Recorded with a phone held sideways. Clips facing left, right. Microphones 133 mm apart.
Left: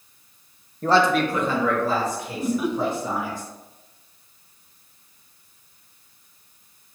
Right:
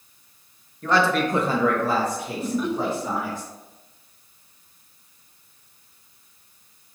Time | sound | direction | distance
0.8 | a man speaking | 40° left (ahead or behind) | 0.7 m
2.4 | laughter | 10° left (ahead or behind) | 0.6 m